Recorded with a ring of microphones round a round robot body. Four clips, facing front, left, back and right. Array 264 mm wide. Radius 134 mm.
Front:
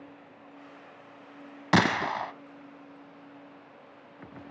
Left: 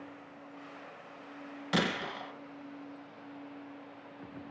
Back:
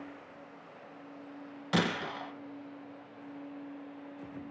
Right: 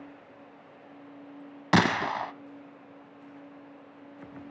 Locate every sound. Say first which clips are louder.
1.7 s a gunshot: right 9 dB, front 7 dB; 45° right, 0.9 m